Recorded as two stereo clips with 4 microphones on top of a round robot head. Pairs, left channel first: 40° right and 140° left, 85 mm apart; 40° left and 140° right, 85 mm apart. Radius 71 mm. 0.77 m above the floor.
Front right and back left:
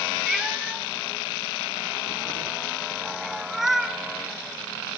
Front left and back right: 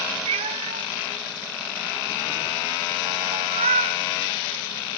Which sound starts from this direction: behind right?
A cat meowing, at 0.3 s.